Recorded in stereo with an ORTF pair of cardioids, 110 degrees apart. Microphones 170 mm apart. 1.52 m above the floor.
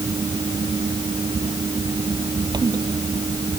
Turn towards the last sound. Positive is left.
turn(degrees=-25)